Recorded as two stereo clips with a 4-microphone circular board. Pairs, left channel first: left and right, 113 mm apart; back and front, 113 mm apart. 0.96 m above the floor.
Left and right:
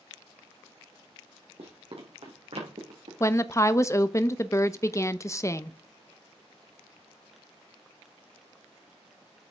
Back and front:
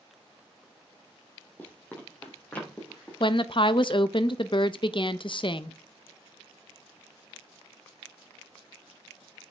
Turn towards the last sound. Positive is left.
turn(degrees=150)